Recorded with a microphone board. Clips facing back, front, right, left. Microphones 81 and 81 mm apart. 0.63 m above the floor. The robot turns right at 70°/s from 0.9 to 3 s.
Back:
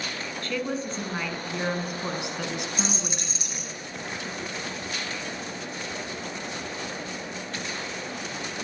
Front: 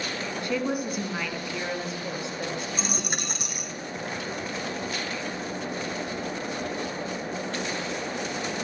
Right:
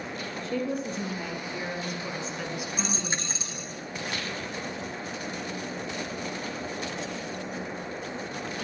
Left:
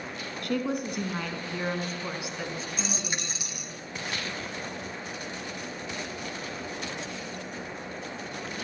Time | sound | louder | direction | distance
0.4 | a woman speaking | front 2 dB, left 1 dB | 75° left | 6 m
2.8 | a dropped coin | even, right 2 dB | 45° right | 3 m